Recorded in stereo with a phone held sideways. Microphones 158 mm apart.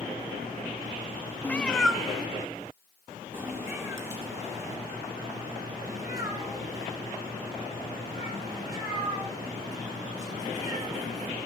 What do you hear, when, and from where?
1.4 s a cat meowing: 10° left (ahead or behind), 0.7 m; by 11.3 s 25° right (ahead or behind), 6.5 m